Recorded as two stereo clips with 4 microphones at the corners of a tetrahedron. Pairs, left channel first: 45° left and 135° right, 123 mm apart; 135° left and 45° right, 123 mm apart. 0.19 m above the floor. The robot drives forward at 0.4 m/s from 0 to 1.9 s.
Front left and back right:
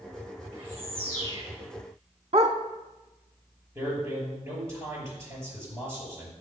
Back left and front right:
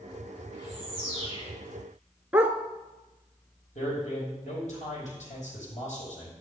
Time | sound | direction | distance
0.5 | a bird | 90° right | 4.5 m
2.3 | a dog barking | 115° right | 0.9 m
3.8 | a man speaking | 160° left | 6 m